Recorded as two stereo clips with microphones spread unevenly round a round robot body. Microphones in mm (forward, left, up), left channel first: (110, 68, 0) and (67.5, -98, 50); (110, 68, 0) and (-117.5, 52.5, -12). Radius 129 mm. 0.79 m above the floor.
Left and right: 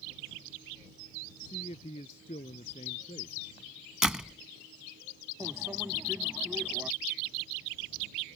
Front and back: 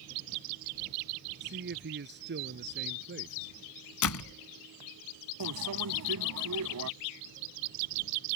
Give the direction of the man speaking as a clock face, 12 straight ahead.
7 o'clock.